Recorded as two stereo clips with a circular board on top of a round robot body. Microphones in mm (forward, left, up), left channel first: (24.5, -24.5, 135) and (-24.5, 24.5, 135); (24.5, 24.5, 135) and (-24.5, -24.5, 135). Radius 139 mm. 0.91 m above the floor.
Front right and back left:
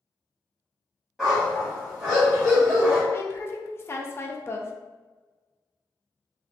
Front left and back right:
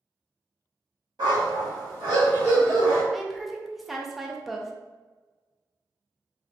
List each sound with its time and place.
1.2 s a dog barking: 140° right, 1.8 m
3.1 s a woman speaking: 50° right, 0.8 m